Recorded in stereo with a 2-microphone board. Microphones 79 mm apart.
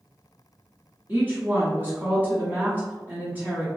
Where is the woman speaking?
25° right (ahead or behind), 1.0 m.